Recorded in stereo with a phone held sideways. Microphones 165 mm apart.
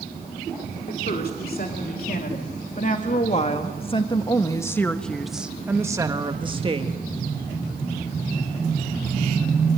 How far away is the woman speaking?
About 3 m.